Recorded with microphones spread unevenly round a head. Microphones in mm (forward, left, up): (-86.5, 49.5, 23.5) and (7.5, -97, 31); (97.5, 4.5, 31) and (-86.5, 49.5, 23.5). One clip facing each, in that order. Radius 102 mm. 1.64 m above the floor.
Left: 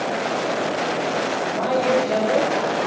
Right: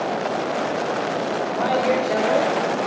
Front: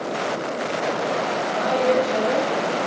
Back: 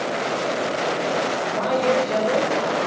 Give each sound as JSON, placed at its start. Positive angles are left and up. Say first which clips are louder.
{"t": 1.5, "sound": "a man speaking", "louder": "left 1 dB, front 1 dB", "azimuth_deg": 55, "distance_m": 3.0}